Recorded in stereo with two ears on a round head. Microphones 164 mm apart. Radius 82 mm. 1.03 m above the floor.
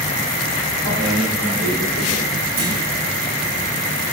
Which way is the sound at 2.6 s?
55° right (ahead or behind).